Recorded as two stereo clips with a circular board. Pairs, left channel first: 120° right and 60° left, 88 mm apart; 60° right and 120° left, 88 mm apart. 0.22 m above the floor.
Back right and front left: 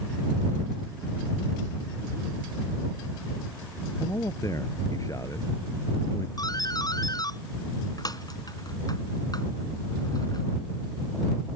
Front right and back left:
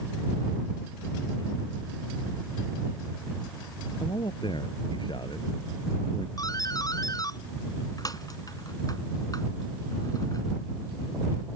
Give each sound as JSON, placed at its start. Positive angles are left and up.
{"t": 4.0, "sound": "a man speaking", "azimuth_deg": -70}
{"t": 6.4, "sound": "a doorbell", "azimuth_deg": -90}